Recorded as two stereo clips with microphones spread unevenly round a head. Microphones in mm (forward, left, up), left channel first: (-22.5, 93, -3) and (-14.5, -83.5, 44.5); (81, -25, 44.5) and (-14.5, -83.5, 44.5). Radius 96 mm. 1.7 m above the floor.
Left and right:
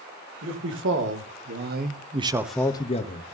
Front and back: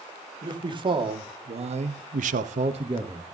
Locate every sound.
0.4 s a man speaking: 100° right, 3 m; by 3.2 s 135° left, 1.4 m